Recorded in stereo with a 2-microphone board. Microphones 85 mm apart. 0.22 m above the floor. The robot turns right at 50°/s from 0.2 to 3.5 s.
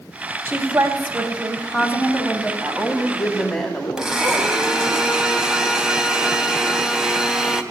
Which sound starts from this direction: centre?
A blender, at 4.0 s.